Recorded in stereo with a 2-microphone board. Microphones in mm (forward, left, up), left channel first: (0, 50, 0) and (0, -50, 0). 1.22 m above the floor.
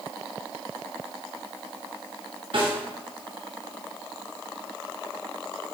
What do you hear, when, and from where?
2.5 s a snare drum: 65° right (ahead or behind), 2 m